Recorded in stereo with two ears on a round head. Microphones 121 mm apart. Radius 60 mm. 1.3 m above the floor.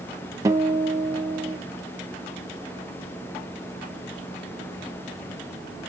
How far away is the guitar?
About 0.9 m.